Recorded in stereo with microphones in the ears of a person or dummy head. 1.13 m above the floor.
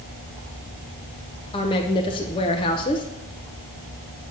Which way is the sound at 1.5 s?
25° left (ahead or behind).